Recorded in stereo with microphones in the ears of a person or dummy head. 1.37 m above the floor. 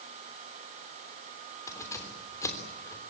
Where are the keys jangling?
20° left (ahead or behind), 3 m.